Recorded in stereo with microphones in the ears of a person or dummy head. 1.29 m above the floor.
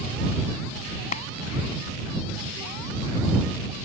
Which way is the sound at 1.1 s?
35° left (ahead or behind).